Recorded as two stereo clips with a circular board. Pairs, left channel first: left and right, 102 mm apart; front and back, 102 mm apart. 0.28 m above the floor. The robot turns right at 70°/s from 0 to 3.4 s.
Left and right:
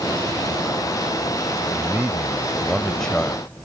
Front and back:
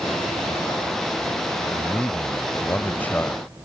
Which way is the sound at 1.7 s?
75° right.